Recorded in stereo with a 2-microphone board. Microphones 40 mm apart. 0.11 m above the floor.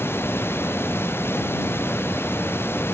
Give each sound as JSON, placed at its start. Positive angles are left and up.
{"t": 0.0, "sound": "running water", "side_deg": 85}